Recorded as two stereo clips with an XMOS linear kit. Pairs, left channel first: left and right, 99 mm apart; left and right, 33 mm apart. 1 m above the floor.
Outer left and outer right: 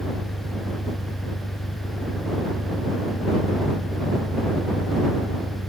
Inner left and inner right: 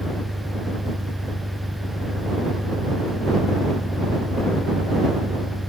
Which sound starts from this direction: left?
An engine running, at 0.0 s.